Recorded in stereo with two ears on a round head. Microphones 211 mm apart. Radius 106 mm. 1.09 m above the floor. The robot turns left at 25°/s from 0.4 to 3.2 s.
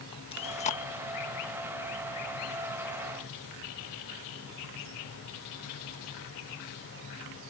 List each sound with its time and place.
0.3 s chewing: 25° left (ahead or behind); by 0.8 s 35° left (ahead or behind)